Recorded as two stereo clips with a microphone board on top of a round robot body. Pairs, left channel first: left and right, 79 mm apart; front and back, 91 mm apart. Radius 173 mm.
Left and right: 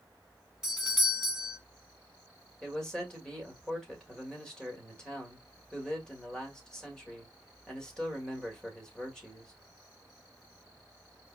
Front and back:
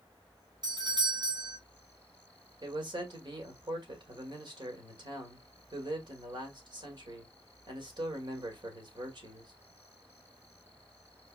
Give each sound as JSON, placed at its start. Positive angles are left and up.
{"t": 0.6, "sound": "a doorbell", "azimuth_deg": -175, "distance_m": 3.0}
{"t": 2.6, "sound": "a man speaking", "azimuth_deg": 170, "distance_m": 2.0}